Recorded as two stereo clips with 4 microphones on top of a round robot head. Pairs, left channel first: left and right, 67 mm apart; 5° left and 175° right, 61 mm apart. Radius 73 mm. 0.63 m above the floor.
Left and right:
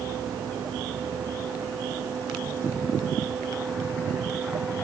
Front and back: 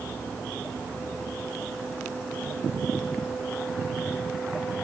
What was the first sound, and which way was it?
Only background noise.